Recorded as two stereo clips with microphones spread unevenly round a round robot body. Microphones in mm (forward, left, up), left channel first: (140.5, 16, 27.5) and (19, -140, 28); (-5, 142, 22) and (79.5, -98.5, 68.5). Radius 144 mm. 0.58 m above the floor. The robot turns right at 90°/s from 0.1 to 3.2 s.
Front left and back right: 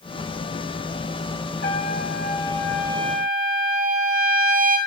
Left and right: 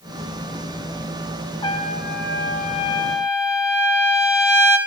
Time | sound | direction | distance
1.6 | a trumpet | 50° left | 1.7 m